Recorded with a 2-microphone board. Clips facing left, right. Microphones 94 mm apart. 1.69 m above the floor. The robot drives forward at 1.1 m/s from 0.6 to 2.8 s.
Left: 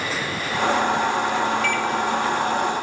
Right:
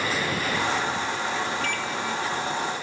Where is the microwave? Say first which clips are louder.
Left 7 dB; 45° right (ahead or behind), 3 m; by 1.9 s 50° right (ahead or behind), 2.5 m.